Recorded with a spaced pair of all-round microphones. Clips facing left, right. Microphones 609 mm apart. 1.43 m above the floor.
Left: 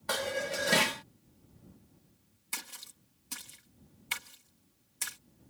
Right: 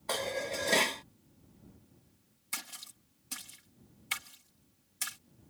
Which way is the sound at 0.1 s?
40° left (ahead or behind).